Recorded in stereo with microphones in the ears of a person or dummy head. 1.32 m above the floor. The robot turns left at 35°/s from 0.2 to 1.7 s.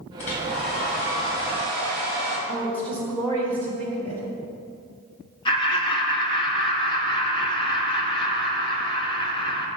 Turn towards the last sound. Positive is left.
turn(degrees=25)  # may be behind; listen again after turning